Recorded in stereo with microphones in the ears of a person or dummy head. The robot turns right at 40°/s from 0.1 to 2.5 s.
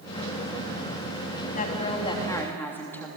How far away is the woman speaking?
About 3 m.